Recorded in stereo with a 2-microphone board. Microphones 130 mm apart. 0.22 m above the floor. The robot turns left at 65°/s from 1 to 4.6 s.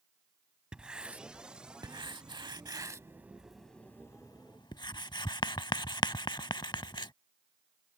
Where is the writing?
10° right (ahead or behind); by 7.1 s 35° left (ahead or behind).